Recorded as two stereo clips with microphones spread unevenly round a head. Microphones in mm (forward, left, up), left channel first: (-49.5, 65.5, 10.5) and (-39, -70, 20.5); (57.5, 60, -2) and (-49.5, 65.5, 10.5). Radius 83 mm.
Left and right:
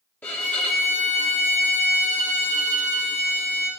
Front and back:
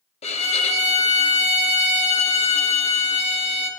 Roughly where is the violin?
Ahead.